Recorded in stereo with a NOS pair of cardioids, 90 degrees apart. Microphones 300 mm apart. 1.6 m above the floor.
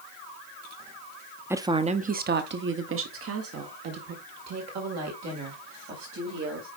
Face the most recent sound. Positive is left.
turn(degrees=-65)